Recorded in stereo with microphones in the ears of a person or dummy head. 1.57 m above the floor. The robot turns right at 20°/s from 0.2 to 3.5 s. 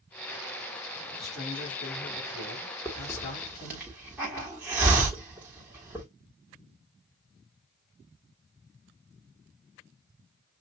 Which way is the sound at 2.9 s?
5° left (ahead or behind).